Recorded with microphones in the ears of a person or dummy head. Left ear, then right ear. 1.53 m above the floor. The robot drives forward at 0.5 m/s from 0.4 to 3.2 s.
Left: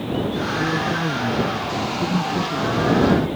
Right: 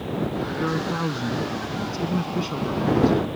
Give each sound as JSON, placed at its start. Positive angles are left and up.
{"t": 0.6, "sound": "a man speaking", "side_deg": -20}